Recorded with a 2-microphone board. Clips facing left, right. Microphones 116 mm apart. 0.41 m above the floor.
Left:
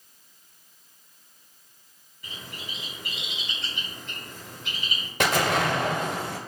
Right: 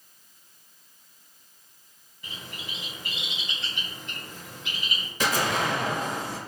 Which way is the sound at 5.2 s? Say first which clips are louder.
Left 3 dB; 60° left (ahead or behind).